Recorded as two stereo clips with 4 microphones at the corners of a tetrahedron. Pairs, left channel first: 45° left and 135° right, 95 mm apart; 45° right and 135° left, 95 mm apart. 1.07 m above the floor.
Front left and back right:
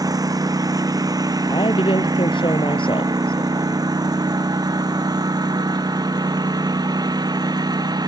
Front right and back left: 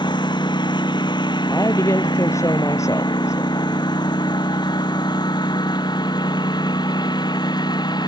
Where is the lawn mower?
85° right; by 8.1 s 90° right.